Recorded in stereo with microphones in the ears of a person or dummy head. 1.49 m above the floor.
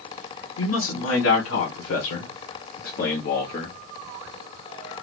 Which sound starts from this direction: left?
A man speaking, at 0.6 s.